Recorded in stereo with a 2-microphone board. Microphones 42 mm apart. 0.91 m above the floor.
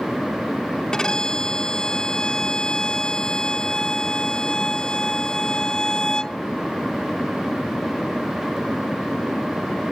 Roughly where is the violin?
Centre.